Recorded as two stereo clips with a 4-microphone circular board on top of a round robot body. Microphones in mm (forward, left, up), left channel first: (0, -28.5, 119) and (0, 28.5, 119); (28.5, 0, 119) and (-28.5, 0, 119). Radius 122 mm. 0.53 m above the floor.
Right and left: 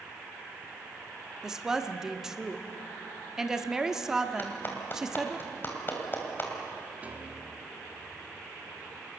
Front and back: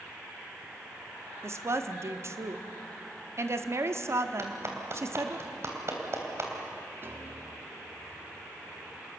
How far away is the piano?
About 1.9 m.